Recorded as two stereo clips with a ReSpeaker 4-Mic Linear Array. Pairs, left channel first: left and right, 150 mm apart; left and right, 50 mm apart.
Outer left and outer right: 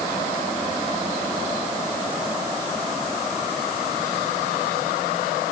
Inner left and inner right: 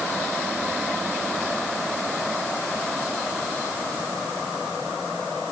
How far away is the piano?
I don't hear a piano.